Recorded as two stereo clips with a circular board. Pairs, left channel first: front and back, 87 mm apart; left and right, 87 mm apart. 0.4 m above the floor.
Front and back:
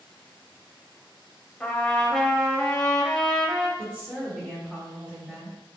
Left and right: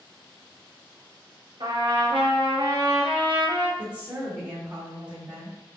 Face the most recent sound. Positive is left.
turn(degrees=-130)